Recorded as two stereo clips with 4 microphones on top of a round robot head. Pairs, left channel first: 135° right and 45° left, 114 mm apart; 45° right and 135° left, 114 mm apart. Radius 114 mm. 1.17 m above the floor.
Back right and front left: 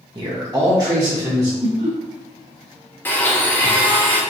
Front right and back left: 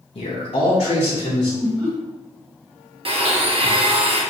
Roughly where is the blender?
Behind left.